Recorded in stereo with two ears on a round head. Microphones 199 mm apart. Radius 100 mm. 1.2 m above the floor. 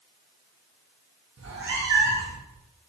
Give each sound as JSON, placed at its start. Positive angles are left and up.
{"t": 1.4, "sound": "a cat meowing", "side_deg": -55, "distance_m": 0.7}